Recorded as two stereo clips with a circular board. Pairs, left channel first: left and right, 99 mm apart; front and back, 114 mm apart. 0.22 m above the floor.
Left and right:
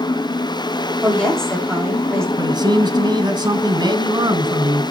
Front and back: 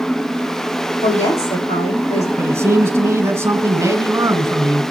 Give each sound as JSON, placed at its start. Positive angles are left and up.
{"t": 1.0, "sound": "a woman speaking", "azimuth_deg": 5, "distance_m": 8.0}
{"t": 2.4, "sound": "a man speaking", "azimuth_deg": -120, "distance_m": 1.7}